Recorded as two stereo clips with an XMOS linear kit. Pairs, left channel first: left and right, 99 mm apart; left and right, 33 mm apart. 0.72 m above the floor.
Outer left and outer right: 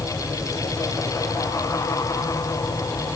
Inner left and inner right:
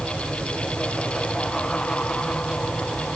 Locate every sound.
Only background noise.